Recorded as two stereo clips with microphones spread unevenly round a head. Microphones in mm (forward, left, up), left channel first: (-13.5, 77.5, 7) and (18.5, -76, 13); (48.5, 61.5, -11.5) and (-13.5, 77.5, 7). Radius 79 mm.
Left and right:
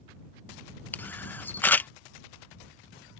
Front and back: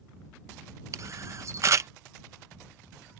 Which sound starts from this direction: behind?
A camera shutter, at 0.9 s.